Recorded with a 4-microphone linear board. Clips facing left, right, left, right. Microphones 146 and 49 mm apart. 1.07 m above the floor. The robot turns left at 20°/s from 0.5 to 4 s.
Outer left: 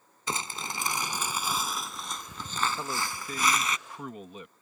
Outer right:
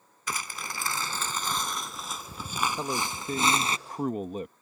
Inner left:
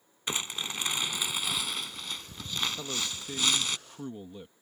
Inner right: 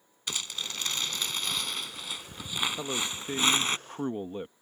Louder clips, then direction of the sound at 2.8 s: Outer right 3 dB, inner right 3 dB; 20° right (ahead or behind).